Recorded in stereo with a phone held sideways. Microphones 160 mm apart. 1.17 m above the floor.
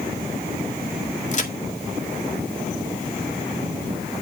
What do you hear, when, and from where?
1.3 s a crack: 45° left (ahead or behind), 1.8 m